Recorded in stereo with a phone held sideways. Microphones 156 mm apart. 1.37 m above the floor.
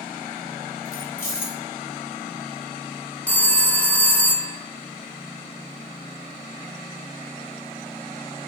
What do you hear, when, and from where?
0.8 s keys jangling: 65° left (ahead or behind), 3 m
3.3 s a phone ringing: 10° left (ahead or behind), 0.9 m